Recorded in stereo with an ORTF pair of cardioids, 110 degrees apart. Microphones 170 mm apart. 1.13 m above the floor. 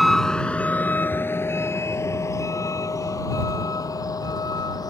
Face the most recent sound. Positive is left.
turn(degrees=20)